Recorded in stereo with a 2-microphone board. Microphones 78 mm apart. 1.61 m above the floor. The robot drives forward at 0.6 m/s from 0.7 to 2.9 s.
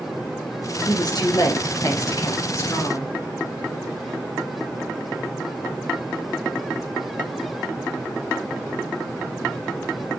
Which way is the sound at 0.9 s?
60° left (ahead or behind).